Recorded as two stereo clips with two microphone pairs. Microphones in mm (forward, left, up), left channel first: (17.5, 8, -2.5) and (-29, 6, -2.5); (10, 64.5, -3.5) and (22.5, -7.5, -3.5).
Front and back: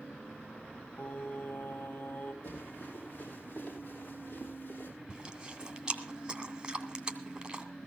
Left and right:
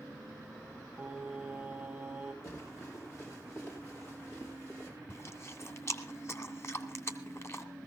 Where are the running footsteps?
55° left, 10 m; by 4.9 s 50° left, 8 m.